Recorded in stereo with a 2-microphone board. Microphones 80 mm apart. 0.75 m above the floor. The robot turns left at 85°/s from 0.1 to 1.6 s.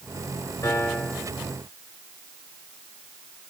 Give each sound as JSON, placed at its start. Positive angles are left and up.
{"t": 0.6, "sound": "a piano", "azimuth_deg": 45, "distance_m": 3.5}